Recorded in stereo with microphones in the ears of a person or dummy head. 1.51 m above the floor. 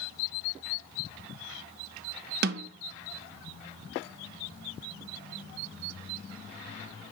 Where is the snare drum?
50° right (ahead or behind), 0.5 m.